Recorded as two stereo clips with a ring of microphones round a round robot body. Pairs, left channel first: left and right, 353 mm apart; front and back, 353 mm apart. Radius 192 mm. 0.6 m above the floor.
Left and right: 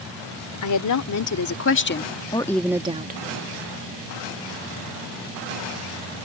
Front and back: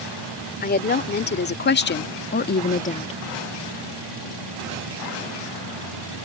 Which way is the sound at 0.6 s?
60° left.